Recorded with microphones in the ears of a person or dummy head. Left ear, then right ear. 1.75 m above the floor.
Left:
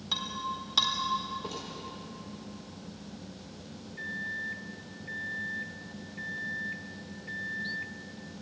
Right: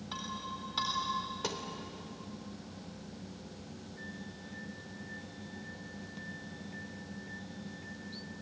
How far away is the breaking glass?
About 4 m.